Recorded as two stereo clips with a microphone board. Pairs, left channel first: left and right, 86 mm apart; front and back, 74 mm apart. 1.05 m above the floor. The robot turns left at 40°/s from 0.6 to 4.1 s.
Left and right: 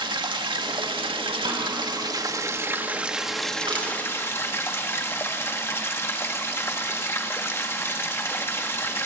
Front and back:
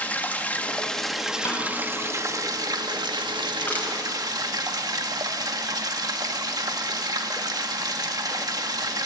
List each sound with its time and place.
0.0 s running water: 70° right, 1.5 m; by 9.1 s 150° left, 1.5 m
1.4 s a snare drum: 50° right, 5.5 m; by 1.7 s 60° right, 5.5 m
3.6 s crushing: 65° right, 6 m; by 3.9 s 75° right, 6 m